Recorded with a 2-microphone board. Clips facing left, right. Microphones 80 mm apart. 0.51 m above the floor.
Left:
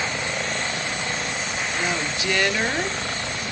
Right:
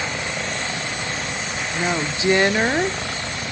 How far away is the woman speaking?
About 0.8 m.